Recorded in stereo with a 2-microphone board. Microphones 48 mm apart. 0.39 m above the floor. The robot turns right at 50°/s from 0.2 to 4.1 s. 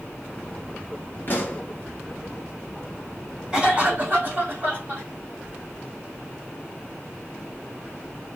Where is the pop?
45° left (ahead or behind), 1.3 m; by 1.6 s 30° left (ahead or behind), 1.3 m.